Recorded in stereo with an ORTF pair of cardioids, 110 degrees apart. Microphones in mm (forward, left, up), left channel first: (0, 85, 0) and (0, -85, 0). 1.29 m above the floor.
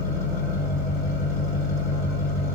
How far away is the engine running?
About 7.5 m.